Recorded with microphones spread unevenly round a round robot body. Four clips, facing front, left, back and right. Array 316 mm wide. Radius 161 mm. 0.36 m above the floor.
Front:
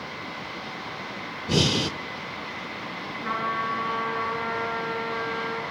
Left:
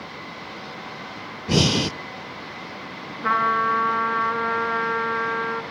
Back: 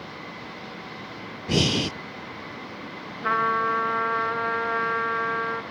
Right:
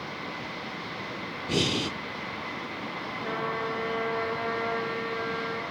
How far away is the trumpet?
About 2.5 m.